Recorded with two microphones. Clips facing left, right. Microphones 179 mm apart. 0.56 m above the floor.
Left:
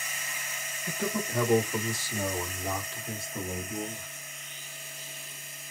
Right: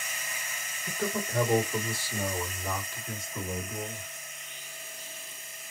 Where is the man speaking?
Centre (ahead or behind), 1.6 m; by 4.1 s 35° left (ahead or behind), 2.0 m.